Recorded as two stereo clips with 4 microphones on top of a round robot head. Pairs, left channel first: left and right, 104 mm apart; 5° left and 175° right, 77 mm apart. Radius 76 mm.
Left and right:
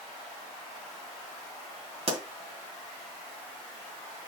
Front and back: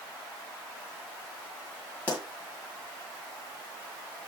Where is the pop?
70° right, 2 m.